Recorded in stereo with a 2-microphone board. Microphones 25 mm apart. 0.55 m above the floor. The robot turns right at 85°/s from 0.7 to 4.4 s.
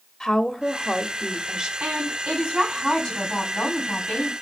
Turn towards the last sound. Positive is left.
turn(degrees=135)